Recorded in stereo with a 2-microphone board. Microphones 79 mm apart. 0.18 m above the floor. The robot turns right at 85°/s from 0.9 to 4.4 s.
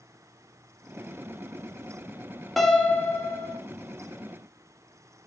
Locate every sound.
2.6 s a piano: straight ahead, 0.6 m; by 3.6 s 90° left, 0.6 m